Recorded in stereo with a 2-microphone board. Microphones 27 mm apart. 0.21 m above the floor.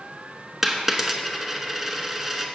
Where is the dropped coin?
10° right (ahead or behind), 1.0 m.